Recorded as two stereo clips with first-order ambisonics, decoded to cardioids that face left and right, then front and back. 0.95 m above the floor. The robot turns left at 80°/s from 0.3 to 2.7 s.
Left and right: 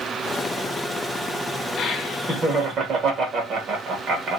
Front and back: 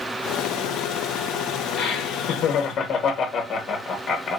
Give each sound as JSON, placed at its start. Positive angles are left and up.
{"t": 1.8, "sound": "laughter", "azimuth_deg": 20, "distance_m": 1.2}